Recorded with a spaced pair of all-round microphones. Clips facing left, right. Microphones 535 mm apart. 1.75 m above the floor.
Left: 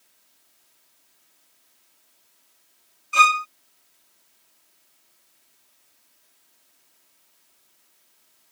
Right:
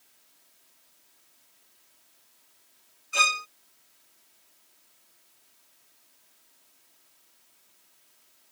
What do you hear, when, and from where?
3.1 s a violin: 30° left (ahead or behind)